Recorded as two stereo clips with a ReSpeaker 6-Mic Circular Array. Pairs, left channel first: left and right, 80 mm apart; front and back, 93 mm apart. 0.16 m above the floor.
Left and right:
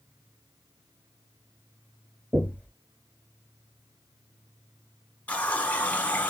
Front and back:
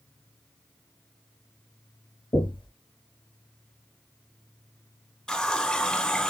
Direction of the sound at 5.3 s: 70° left.